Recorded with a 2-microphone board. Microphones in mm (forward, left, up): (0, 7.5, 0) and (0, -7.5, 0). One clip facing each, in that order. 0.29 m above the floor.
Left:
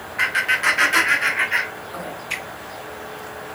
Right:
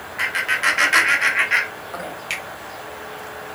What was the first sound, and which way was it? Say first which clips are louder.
Laughter: left 1 dB; centre (ahead or behind).